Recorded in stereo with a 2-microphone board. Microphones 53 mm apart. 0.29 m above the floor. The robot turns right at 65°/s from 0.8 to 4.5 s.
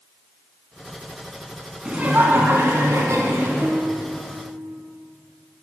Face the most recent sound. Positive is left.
turn(degrees=-50)